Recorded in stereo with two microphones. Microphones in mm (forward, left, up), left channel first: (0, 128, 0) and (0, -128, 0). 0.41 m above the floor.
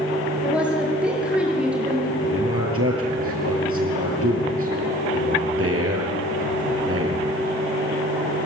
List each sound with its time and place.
0.4 s a woman speaking: 5° right (ahead or behind), 7 m
2.2 s a man speaking: 60° right (ahead or behind), 6.5 m